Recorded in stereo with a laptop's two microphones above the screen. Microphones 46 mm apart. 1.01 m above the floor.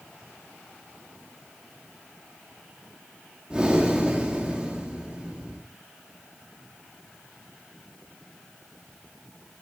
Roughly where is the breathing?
Centre.